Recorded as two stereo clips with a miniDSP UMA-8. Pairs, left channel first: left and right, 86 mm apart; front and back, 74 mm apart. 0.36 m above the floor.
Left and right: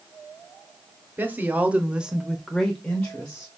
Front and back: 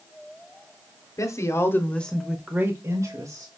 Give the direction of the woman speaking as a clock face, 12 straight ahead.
1 o'clock.